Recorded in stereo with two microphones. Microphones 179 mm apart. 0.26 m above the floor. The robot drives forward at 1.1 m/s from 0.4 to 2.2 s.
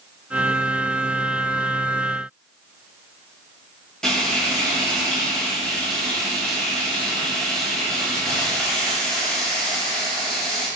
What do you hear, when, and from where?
4.0 s frying: 5° left (ahead or behind), 1.5 m